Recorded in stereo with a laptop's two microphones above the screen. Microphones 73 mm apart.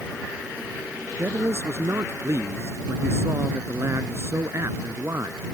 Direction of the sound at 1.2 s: 40° right (ahead or behind).